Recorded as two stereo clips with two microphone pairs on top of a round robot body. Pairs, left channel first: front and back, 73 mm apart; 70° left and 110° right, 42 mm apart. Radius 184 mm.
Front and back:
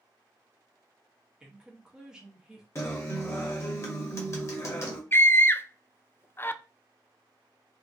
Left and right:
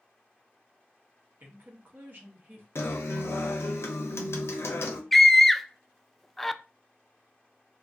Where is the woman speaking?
100° right, 1.1 m.